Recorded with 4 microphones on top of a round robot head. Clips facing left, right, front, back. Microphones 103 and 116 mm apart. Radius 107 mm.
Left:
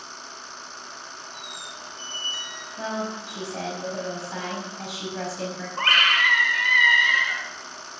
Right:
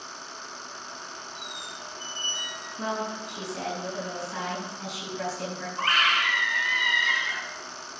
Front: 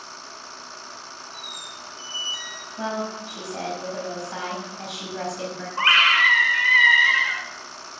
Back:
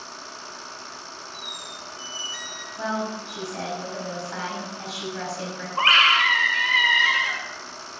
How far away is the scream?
About 2 m.